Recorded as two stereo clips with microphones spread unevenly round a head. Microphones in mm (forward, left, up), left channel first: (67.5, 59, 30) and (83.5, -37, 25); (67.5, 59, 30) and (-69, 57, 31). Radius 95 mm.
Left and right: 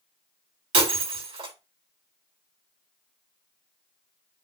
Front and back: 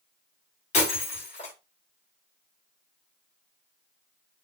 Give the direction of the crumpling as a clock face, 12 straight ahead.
No crumpling in this recording.